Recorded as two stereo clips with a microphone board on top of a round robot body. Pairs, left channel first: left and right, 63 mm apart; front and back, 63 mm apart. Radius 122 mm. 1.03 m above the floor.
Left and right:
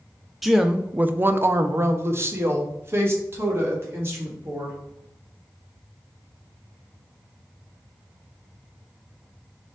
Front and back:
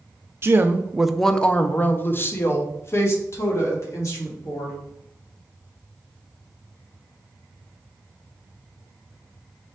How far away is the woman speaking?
About 0.6 m.